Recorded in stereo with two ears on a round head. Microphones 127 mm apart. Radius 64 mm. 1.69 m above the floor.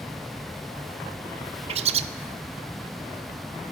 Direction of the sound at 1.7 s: 45° right (ahead or behind).